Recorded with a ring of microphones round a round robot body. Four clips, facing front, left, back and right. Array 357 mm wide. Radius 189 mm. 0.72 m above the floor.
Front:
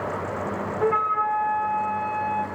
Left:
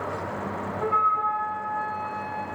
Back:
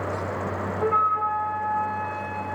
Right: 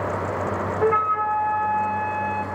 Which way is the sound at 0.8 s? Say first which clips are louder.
Right 2 dB, even; 70° right.